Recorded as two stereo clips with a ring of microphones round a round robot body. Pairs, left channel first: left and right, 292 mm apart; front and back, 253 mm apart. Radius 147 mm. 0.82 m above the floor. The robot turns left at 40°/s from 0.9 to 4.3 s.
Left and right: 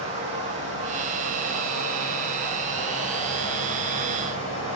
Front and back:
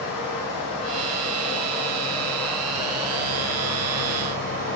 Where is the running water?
20° right, 3 m; by 4.8 s 160° right, 3 m.